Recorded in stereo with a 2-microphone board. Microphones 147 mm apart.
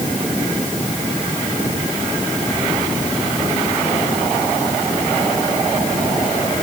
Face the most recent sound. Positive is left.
No sound to turn to.